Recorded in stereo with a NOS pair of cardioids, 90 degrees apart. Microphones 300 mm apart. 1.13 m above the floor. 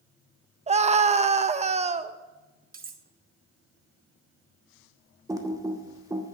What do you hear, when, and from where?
0.7 s a scream: 20° right, 0.9 m
2.7 s cutlery clinking: 30° right, 0.9 m
5.3 s typing on a keyboard: 10° right, 1.3 m